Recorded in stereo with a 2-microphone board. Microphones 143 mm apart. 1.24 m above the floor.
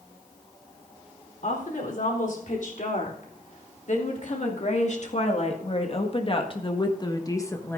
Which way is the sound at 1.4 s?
75° left (ahead or behind).